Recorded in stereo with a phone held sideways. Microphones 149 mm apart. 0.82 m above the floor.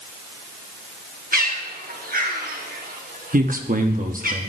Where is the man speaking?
65° right (ahead or behind), 1.1 m.